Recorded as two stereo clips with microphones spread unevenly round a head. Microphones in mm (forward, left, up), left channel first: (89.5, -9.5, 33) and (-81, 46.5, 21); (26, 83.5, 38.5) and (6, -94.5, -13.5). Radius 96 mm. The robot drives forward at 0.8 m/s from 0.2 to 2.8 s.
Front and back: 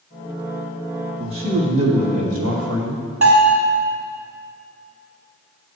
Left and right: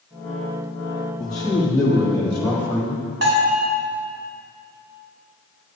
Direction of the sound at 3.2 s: 140° right.